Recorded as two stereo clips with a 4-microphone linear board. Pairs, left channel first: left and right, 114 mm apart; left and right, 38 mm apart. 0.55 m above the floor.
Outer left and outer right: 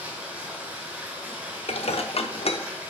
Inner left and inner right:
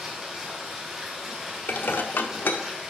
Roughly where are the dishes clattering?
Left.